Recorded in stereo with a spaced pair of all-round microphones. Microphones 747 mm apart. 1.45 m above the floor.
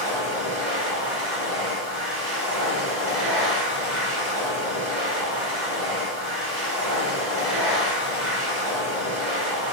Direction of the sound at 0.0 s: 70° right (ahead or behind).